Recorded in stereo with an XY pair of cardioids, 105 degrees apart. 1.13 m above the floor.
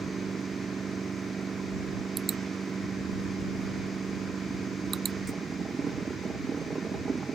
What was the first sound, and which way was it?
A machine running, 35° right.